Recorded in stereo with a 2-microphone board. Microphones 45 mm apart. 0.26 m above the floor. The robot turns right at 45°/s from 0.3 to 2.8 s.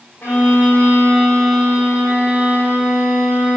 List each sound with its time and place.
0.2 s a violin: 125° left, 9 m; by 3.6 s 125° right, 9 m